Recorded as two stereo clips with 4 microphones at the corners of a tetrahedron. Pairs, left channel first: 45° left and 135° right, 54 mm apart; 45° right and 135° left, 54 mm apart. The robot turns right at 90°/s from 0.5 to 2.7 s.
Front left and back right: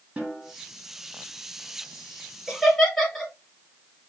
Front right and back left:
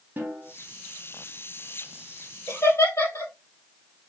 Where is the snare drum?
160° left, 2.5 m.